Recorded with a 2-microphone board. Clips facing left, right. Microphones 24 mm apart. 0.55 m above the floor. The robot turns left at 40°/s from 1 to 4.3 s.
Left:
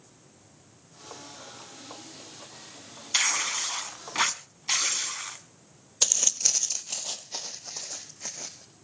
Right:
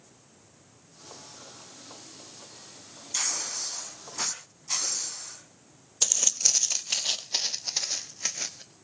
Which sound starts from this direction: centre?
Footsteps, at 6.0 s.